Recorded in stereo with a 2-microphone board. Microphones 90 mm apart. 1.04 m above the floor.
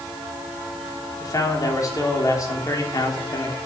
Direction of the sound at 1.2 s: 40° left (ahead or behind).